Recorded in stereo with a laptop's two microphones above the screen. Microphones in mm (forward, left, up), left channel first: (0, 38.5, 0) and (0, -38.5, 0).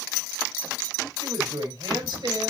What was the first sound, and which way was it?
A woman speaking, 75° right (ahead or behind).